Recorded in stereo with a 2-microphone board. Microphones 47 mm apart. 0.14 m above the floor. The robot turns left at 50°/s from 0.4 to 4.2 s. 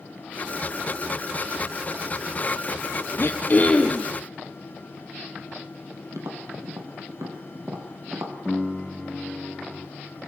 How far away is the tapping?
About 2.5 m.